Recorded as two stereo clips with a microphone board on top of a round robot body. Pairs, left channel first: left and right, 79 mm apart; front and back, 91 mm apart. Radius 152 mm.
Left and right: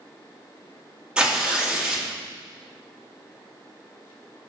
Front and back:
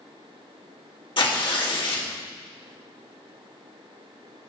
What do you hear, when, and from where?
1.2 s tearing paper: 15° right, 1.7 m